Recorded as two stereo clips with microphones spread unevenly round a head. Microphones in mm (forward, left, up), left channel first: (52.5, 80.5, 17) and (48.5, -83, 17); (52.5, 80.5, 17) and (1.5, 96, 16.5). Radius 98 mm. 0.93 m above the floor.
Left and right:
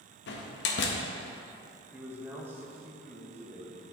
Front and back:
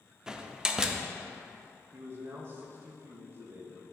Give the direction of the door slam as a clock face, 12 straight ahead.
9 o'clock.